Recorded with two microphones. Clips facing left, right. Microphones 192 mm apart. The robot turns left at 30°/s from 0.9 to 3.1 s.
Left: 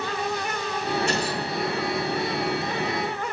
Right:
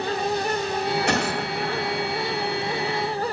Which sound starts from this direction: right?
A gunshot, at 1.1 s.